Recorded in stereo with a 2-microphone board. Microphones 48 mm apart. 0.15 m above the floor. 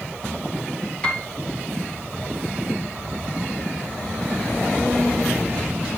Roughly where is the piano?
Left.